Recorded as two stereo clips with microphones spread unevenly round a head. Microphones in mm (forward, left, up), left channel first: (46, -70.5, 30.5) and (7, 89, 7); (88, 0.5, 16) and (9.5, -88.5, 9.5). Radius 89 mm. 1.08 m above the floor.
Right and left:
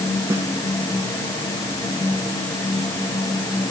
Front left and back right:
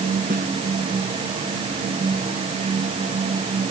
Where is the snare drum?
Straight behind.